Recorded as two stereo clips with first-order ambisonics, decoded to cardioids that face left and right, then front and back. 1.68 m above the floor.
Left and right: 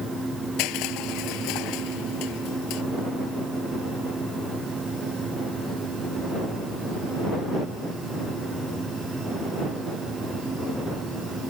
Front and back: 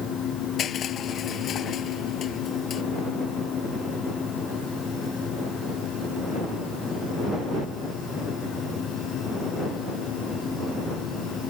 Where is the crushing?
60° left.